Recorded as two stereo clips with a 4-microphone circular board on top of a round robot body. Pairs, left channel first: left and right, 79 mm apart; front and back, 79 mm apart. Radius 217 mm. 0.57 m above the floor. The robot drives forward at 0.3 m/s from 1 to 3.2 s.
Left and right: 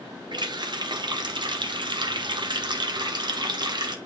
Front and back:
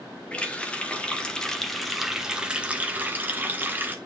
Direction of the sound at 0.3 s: 75° right.